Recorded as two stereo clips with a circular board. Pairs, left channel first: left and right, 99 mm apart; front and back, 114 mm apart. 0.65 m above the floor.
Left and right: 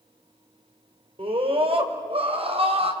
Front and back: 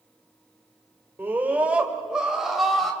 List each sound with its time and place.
1.2 s a scream: 110° right, 3 m; by 2.9 s 90° right, 4 m